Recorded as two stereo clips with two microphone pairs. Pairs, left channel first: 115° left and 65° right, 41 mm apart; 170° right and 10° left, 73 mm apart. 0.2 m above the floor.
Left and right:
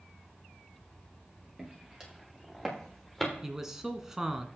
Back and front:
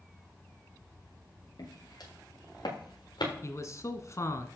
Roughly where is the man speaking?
Behind right.